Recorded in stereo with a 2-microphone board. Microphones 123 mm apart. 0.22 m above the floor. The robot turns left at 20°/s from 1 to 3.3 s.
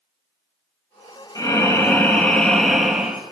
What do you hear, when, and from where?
1.4 s breathing: 30° left, 1.2 m; by 3.2 s 10° right, 1.2 m